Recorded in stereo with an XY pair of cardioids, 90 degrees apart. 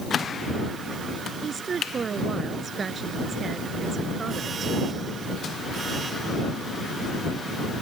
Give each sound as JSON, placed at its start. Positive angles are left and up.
{"t": 1.4, "sound": "a woman speaking", "azimuth_deg": -50}